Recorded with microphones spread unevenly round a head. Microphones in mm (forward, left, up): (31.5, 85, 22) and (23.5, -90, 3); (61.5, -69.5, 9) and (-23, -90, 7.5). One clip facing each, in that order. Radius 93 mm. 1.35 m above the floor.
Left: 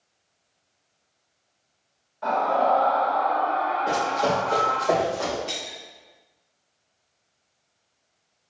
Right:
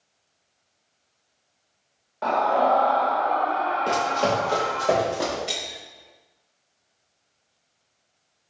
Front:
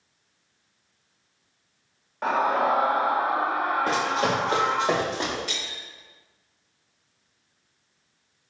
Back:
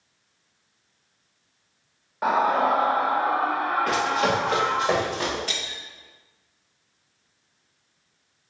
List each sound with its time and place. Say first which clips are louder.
2.2 s a scream: right 1 dB, back 2 dB; 85° right, 1.3 m; by 4.9 s 45° right, 2.5 m
3.9 s running footsteps: right 1 dB, back 1 dB; 35° right, 1.9 m
5.5 s breaking glass: right 1 dB, back 2 dB; 165° right, 1.0 m